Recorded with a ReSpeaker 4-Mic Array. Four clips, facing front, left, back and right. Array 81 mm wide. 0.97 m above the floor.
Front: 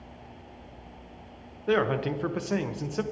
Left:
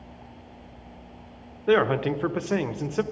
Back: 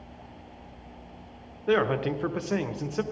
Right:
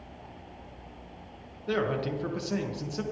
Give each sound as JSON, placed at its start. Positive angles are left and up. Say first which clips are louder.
{"t": 1.7, "sound": "a man speaking", "louder": "left 8 dB, back 1 dB", "azimuth_deg": 95, "distance_m": 0.9}